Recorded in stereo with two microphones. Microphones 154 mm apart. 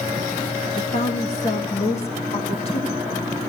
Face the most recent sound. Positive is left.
turn(degrees=40)  # may be behind; listen again after turning